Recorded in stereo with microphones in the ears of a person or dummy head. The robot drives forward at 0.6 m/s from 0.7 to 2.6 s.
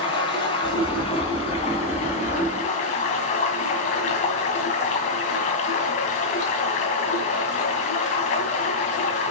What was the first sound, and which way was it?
Running water, 30° left (ahead or behind).